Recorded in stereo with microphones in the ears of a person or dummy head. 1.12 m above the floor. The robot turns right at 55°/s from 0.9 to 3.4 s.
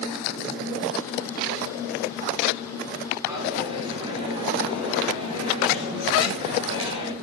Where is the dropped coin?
25° right (ahead or behind), 5 m; by 7.1 s 30° right (ahead or behind), 5 m.